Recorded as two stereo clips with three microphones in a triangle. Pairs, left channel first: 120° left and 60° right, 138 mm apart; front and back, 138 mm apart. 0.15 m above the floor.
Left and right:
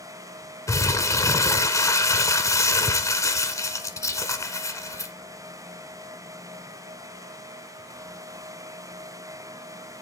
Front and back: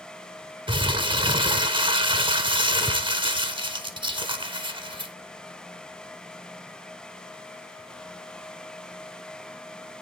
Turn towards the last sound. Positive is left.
turn(degrees=170)